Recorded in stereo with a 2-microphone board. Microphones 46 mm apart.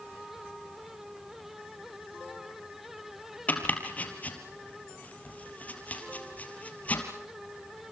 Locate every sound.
3.5 s chopping: 35° left (ahead or behind), 3.5 m